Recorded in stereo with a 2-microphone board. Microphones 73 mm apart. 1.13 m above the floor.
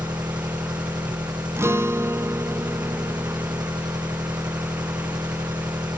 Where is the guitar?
35° right (ahead or behind), 0.6 m.